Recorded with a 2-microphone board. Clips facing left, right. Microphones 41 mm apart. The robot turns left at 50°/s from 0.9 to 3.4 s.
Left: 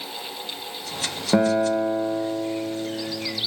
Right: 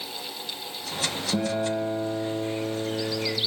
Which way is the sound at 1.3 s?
55° left.